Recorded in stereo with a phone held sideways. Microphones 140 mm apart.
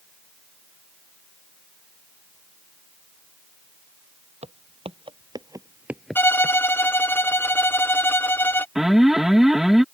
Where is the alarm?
5° right (ahead or behind).